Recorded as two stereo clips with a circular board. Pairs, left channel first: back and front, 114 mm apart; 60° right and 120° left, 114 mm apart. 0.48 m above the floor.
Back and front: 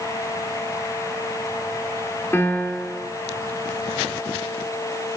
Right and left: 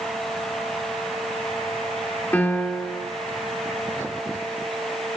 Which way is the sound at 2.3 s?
125° right.